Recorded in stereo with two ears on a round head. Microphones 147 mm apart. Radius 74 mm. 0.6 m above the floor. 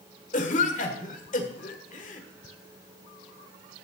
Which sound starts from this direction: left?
A cough, at 0.3 s.